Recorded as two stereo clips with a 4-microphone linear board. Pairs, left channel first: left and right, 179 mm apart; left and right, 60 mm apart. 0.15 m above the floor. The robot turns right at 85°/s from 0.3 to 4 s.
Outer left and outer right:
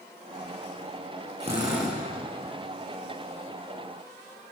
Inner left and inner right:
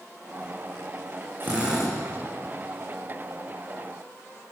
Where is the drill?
40° right, 5.5 m; by 2.0 s 5° left, 5.5 m.